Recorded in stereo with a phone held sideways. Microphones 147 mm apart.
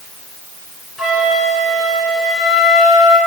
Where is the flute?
5° right (ahead or behind), 7 m.